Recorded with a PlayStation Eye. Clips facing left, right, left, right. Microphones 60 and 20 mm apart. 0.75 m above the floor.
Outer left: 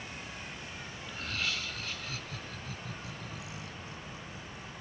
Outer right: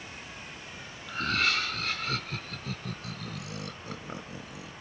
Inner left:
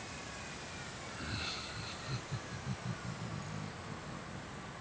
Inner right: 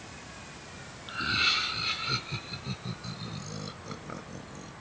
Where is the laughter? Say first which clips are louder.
Outer right 9 dB, inner right 16 dB; 65° right (ahead or behind); by 4.7 s 85° right.